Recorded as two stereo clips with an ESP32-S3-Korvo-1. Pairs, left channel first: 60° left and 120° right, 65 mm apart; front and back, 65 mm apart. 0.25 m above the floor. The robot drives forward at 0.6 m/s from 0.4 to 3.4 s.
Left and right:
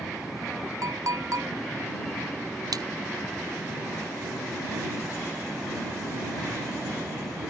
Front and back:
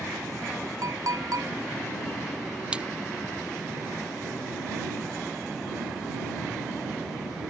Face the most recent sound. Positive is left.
turn(degrees=-110)